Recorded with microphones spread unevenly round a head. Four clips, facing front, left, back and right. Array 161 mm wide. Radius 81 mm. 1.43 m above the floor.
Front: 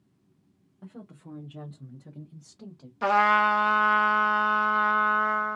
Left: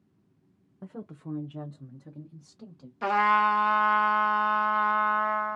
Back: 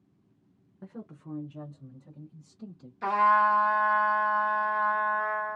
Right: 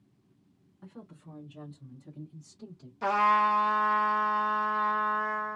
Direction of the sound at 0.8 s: 100° left.